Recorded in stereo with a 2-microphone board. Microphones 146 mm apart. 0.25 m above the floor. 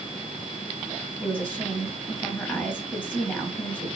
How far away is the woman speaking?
About 1.7 m.